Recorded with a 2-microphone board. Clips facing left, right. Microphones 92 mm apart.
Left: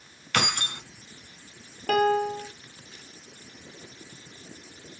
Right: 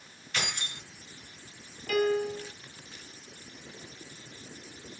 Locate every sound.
0.3 s keys jangling: 70° left (ahead or behind), 2 m
1.9 s a piano: 65° left (ahead or behind), 1.6 m